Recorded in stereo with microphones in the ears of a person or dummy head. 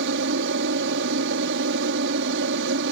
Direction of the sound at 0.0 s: 70° right (ahead or behind).